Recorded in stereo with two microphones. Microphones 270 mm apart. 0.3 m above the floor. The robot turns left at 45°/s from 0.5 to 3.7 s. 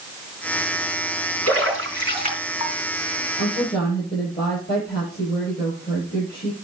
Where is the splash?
60° right (ahead or behind), 3.5 m; by 2.7 s 10° right (ahead or behind), 3.5 m.